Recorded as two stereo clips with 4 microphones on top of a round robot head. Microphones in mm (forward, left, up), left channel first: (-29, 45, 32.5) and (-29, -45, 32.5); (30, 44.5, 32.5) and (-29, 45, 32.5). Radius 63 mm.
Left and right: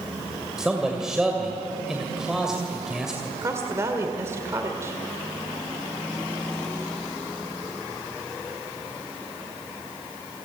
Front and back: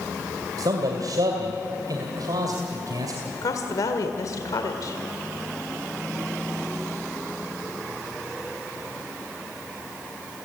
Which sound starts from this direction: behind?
A man speaking, at 0.6 s.